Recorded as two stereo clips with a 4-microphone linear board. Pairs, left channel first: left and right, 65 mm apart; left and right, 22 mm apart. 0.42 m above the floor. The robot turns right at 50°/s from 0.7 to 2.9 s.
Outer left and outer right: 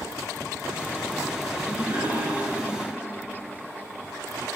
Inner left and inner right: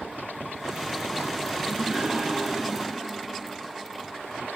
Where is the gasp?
135° right, 4.5 m; by 2.9 s 70° right, 4.5 m.